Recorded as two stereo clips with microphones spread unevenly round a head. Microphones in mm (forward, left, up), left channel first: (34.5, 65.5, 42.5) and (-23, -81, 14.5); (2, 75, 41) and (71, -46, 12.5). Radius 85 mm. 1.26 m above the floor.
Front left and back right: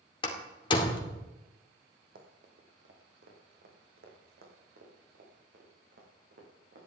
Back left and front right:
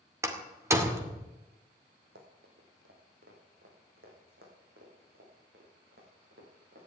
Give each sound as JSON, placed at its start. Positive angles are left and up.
{"t": 0.2, "sound": "a door slam", "azimuth_deg": 10, "distance_m": 2.5}
{"t": 2.1, "sound": "running footsteps", "azimuth_deg": -80, "distance_m": 3.5}